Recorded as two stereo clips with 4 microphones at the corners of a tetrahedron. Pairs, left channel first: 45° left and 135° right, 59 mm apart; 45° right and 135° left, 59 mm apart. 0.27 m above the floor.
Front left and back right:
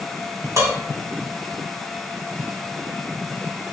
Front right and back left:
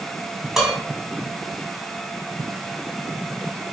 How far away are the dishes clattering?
About 1.4 m.